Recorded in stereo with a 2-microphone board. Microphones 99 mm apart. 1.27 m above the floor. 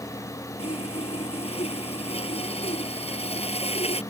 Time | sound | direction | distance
0.6 | sawing | 85° left | ?